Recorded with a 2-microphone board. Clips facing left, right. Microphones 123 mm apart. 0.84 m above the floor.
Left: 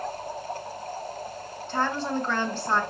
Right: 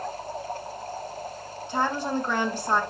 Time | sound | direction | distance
1.7 | a woman speaking | 15° right (ahead or behind) | 0.8 m